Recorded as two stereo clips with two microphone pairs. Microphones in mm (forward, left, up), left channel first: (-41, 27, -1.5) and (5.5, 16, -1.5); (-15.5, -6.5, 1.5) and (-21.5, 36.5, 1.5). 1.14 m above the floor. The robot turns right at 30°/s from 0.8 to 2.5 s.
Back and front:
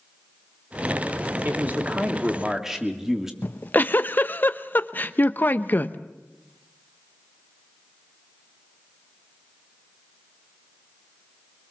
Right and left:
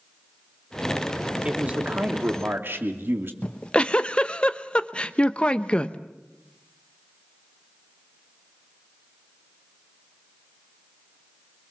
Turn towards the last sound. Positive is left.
turn(degrees=-150)